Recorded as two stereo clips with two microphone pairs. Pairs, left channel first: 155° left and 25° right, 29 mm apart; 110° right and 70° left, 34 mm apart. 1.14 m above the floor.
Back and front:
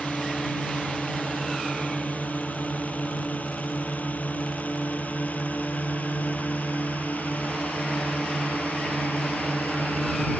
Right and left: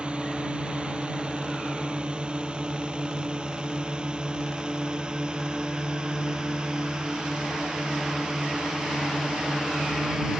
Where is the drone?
130° left; by 10.4 s 140° left.